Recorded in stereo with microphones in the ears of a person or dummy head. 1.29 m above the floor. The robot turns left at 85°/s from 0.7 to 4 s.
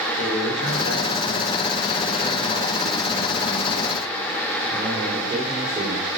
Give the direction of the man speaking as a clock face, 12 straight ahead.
7 o'clock.